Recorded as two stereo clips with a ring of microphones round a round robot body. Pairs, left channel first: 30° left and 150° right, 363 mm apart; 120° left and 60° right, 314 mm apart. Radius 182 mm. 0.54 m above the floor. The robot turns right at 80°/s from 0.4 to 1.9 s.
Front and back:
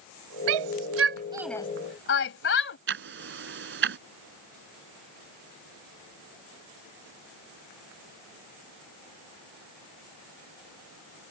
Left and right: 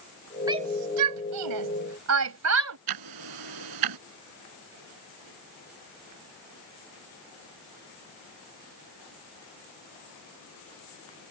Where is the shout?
140° right; by 2.8 s 25° right.